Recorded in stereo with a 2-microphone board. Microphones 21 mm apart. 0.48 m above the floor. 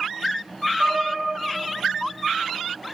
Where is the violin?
40° right (ahead or behind), 1.3 m.